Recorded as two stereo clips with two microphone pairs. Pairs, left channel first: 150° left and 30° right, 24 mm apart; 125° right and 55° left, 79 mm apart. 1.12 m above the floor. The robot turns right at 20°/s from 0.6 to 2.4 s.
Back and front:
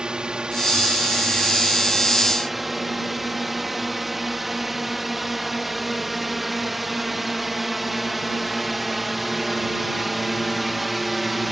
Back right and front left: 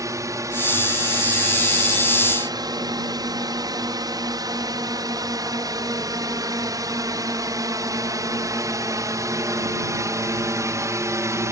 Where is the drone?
15° left; by 11.5 s 55° left.